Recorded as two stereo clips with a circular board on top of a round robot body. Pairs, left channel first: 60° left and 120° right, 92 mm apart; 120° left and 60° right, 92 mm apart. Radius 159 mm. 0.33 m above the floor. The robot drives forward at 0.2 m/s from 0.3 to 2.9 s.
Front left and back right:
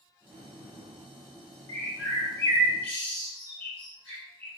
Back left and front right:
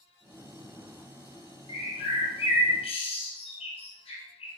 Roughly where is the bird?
Behind left.